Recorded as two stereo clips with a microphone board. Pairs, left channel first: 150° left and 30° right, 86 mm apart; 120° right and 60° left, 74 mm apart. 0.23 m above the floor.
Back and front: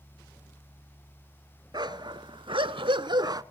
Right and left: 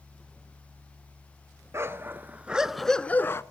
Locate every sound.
1.7 s a dog barking: 5° left, 0.9 m; by 3.4 s 70° right, 0.5 m